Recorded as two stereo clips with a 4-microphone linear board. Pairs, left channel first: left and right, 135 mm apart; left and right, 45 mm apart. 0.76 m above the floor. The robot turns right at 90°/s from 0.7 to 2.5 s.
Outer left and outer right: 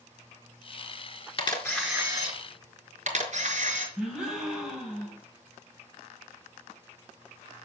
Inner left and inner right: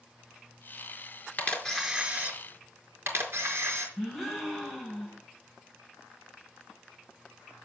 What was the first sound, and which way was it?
A camera shutter, 140° left.